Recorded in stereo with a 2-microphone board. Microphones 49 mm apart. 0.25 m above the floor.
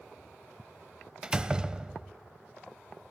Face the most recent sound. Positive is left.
turn(degrees=-15)  # may be behind; listen again after turning